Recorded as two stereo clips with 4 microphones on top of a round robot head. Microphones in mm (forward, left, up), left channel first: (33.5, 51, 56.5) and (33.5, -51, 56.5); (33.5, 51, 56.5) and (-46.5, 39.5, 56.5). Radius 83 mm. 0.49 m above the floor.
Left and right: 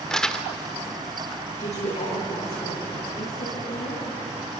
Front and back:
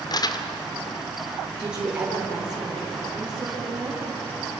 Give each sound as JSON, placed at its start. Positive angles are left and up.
{"t": 0.1, "sound": "crumpling", "azimuth_deg": 10, "distance_m": 1.7}
{"t": 1.6, "sound": "a woman speaking", "azimuth_deg": 110, "distance_m": 9.0}